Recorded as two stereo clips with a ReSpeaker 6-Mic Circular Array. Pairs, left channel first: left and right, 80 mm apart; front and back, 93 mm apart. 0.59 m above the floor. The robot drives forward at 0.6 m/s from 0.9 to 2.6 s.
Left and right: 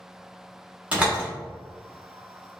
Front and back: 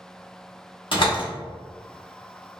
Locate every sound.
0.9 s a door slam: 15° right, 1.1 m; by 1.3 s 20° right, 0.9 m